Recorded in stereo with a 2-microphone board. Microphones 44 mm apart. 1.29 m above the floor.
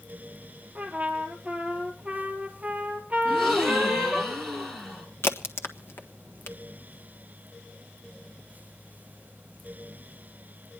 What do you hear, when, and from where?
0.8 s a trumpet: 30° right (ahead or behind), 3.5 m
3.2 s a gasp: centre (ahead or behind), 3.5 m
5.2 s a crack: 70° left (ahead or behind), 1.4 m